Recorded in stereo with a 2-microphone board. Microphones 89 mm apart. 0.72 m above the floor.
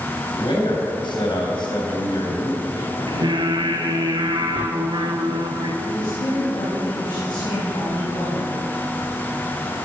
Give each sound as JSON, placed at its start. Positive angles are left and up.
{"t": 0.3, "sound": "a man speaking", "side_deg": 60, "distance_m": 3.5}
{"t": 3.1, "sound": "singing", "side_deg": -60, "distance_m": 2.5}
{"t": 5.8, "sound": "a woman speaking", "side_deg": 60, "distance_m": 4.5}